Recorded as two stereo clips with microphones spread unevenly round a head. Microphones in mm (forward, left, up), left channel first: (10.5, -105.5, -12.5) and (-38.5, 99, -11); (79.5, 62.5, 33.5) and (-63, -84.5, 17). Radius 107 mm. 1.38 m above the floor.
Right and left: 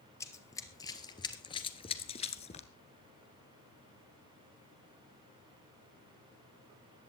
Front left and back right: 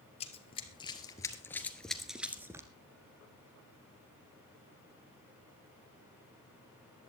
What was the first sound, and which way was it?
Running footsteps, straight ahead.